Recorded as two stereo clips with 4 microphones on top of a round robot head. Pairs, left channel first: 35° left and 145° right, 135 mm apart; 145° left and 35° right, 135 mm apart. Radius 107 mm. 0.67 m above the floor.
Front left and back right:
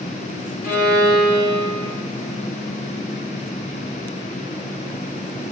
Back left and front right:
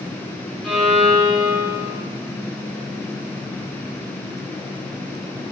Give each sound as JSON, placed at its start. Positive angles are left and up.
{"t": 0.6, "sound": "a violin", "azimuth_deg": 60, "distance_m": 1.0}